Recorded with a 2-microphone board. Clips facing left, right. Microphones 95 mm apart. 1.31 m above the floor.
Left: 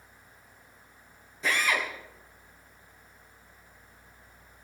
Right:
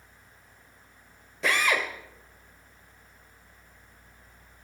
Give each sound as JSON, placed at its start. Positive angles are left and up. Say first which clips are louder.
{"t": 1.4, "sound": "a drill", "louder": "right 2 dB", "side_deg": -70, "distance_m": 2.5}